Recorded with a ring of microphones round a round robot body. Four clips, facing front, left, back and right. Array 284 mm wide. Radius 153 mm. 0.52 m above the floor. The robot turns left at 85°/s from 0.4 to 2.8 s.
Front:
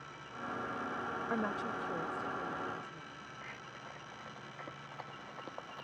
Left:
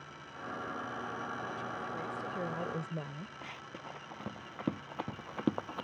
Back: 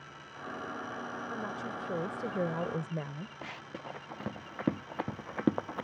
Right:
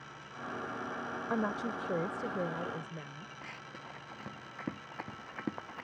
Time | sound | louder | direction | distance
1.3 | a woman speaking | right 6 dB, front 4 dB | 70° right | ?
3.4 | running footsteps | left 1 dB, back 6 dB | 175° left | ?